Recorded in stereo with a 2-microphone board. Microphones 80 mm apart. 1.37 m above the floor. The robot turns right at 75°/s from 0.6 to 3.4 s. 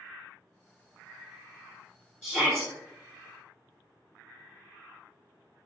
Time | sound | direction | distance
2.2 | a shout | 155° left | 1.3 m